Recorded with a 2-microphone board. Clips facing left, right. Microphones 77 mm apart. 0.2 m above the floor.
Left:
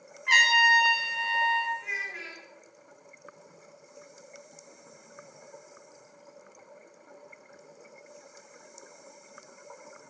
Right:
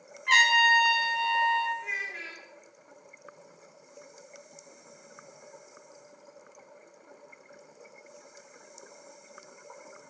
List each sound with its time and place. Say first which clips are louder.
0.3 s a trumpet: even; 10° left (ahead or behind), 1.4 m
1.8 s a child speaking: even; 5° left (ahead or behind), 0.7 m